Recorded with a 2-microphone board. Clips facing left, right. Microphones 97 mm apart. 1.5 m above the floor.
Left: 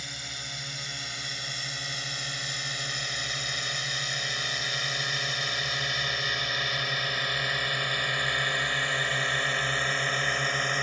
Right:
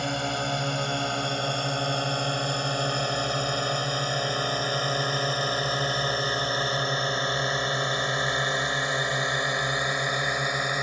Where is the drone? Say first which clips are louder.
Right 15 dB; 55° right (ahead or behind); by 10.8 s 10° right (ahead or behind).